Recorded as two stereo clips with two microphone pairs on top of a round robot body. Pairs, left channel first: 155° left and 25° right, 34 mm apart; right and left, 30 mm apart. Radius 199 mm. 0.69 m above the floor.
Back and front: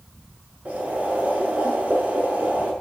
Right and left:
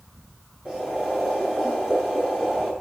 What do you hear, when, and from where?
0.7 s boiling: 20° left, 8 m